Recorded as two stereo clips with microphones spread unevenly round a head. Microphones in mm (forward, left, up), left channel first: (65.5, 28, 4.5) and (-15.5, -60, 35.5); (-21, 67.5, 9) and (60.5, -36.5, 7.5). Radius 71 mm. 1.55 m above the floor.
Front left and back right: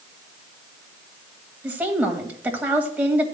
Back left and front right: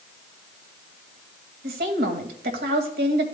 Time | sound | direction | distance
1.6 | a woman speaking | 55° right | 2.0 m